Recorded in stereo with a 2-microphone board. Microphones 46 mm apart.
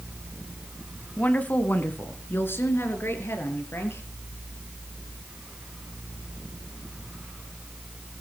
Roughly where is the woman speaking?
Left.